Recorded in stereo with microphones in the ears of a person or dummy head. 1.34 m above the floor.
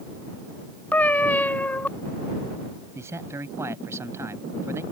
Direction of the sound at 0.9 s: 10° left (ahead or behind).